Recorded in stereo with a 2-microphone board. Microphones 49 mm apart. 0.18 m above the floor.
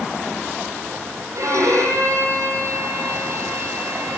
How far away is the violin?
About 8.5 m.